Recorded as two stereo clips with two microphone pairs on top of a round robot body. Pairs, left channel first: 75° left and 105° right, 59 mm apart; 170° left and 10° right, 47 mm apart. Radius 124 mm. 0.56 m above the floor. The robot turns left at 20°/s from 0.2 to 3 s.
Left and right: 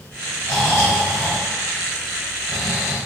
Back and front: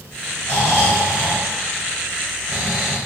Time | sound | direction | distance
0.4 | snoring | 140° left | 0.6 m